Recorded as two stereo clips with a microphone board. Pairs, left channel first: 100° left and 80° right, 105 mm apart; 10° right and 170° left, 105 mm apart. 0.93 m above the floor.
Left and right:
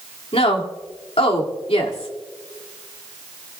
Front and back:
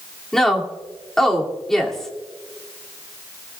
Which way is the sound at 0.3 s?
75° left.